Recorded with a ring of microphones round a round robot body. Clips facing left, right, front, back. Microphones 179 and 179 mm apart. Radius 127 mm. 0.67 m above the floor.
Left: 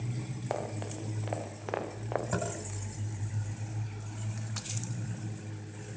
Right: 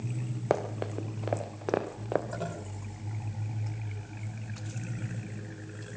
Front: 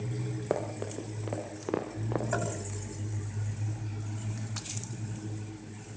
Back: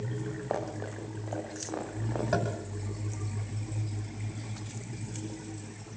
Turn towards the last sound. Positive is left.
turn(degrees=130)